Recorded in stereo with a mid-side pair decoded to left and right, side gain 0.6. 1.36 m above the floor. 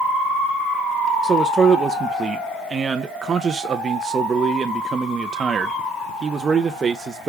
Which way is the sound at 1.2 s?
25° right.